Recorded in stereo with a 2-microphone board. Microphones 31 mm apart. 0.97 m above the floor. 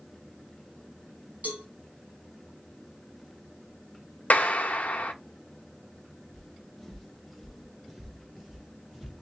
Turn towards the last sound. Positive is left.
turn(degrees=-5)  # may be behind; listen again after turning